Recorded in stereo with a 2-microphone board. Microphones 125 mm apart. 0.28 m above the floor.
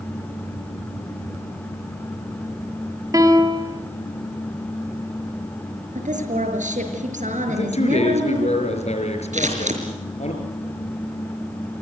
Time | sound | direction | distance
3.1 | a piano | 25° right (ahead or behind) | 2 m
6.0 | a woman speaking | 70° right (ahead or behind) | 6 m
7.5 | a man speaking | 55° left (ahead or behind) | 5.5 m
9.3 | scissors | 65° right (ahead or behind) | 5 m